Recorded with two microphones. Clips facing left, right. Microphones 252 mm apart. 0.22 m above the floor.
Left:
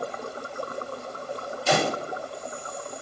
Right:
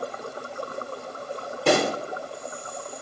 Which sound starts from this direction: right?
A pop, at 1.7 s.